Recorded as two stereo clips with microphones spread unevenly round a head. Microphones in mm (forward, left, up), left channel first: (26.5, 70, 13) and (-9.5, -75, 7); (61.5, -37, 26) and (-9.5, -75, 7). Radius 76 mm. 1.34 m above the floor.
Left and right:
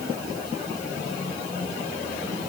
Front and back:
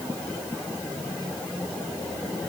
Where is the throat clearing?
I don't hear throat clearing.